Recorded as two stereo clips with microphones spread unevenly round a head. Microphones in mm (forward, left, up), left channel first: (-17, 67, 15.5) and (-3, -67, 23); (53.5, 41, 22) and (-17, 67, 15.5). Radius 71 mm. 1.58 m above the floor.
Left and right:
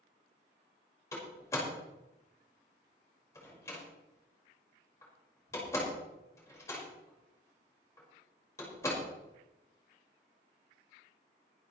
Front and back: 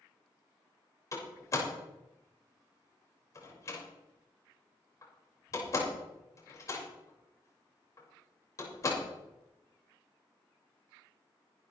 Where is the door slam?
25° left, 5.5 m.